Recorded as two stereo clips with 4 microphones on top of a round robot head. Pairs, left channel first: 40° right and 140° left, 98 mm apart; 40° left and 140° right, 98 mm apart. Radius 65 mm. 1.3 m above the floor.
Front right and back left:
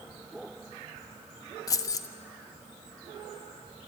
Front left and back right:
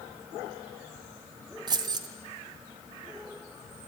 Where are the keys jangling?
95° right, 0.6 m.